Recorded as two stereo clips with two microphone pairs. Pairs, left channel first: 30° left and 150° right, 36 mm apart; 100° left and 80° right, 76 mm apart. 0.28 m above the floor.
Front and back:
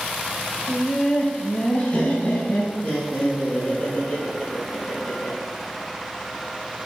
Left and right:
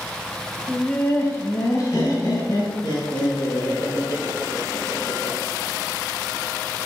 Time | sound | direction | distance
0.7 | laughter | 50° left | 1.0 m